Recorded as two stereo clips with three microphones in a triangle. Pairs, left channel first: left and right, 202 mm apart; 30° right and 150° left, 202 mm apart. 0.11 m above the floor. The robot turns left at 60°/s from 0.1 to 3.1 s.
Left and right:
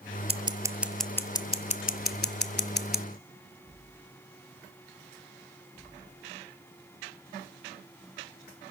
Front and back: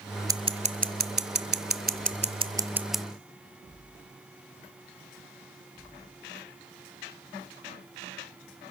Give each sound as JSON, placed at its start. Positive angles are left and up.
{"t": 0.3, "sound": "scissors", "azimuth_deg": -140, "distance_m": 0.7}